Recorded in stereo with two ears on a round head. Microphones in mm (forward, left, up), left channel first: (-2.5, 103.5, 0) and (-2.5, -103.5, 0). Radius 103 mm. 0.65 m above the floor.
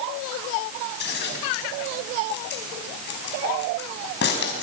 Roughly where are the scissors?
Left.